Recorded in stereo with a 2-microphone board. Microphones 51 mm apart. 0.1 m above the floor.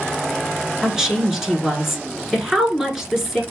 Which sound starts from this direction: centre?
A woman speaking, at 0.8 s.